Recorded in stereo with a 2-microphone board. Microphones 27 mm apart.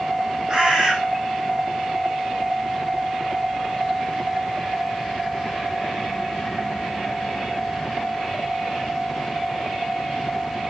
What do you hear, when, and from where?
0.5 s a bird: 20° right (ahead or behind), 5.5 m